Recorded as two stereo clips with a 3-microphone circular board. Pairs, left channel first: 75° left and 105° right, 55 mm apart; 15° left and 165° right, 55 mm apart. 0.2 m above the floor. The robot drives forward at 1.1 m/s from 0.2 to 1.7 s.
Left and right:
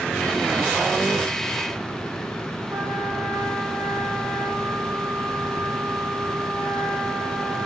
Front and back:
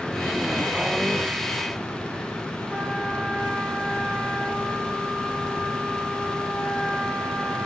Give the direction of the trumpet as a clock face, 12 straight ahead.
3 o'clock.